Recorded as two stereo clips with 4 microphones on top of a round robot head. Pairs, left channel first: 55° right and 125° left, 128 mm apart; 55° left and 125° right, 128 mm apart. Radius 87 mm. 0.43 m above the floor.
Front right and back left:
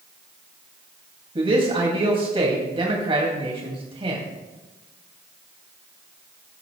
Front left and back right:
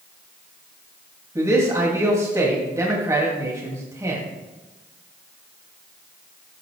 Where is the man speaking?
170° left, 2.5 m.